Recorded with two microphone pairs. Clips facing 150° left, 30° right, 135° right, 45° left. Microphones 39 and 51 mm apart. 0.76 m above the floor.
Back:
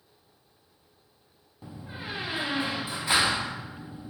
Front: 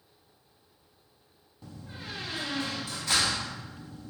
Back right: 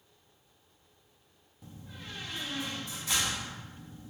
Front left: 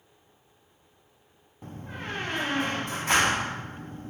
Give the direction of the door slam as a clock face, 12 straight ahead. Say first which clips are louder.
Back 4 dB, front left 10 dB; 9 o'clock.